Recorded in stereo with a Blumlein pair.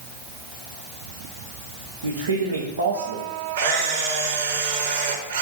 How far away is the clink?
No clink in this recording.